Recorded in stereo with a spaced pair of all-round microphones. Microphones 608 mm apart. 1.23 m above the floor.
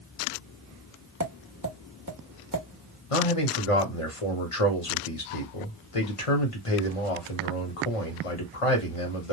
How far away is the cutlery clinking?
No cutlery clinking in this recording.